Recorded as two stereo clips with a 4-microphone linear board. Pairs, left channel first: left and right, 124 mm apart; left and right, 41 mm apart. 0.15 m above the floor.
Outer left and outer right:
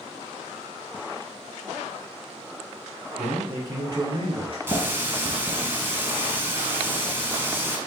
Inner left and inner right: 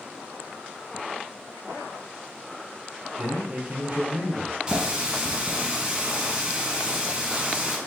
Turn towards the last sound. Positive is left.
turn(degrees=-20)  # may be behind; listen again after turning